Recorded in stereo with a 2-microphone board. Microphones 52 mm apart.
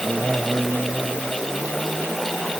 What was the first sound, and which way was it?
Only background noise.